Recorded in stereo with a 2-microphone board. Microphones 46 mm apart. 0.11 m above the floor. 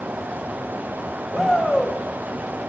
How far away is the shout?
About 7 m.